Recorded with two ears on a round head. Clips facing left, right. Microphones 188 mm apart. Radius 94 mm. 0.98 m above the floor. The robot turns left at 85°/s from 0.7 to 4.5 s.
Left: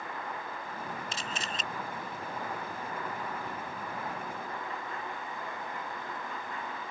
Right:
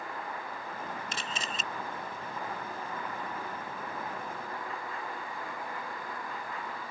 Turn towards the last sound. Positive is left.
turn(degrees=30)